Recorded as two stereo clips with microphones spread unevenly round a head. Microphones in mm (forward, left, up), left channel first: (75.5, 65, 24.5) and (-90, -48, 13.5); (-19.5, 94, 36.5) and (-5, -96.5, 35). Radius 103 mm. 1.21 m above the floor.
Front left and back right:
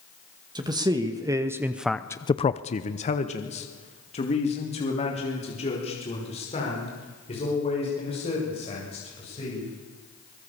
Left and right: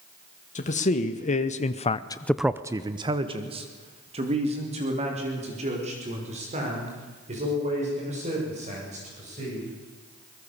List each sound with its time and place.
0.6 s a man speaking: 145° left, 1.9 m; by 9.7 s 30° right, 8.5 m